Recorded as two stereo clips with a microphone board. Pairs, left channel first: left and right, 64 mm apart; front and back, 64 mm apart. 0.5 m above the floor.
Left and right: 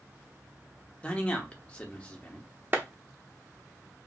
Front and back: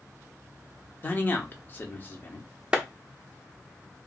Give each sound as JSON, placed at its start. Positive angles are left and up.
{"t": 1.0, "sound": "a man speaking", "azimuth_deg": 35, "distance_m": 0.8}
{"t": 2.7, "sound": "a clap", "azimuth_deg": -115, "distance_m": 0.7}